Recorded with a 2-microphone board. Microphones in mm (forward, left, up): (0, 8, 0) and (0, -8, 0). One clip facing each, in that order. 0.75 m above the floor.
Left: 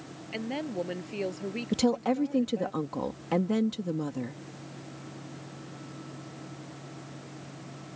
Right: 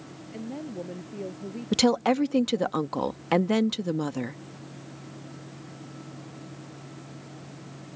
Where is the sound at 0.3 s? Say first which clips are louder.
Left 3 dB; 70° left (ahead or behind).